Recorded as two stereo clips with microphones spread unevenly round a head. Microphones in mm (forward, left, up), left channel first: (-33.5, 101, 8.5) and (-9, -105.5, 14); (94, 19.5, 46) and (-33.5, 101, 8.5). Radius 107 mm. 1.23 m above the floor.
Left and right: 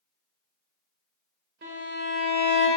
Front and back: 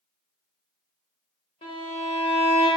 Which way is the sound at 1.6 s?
60° right.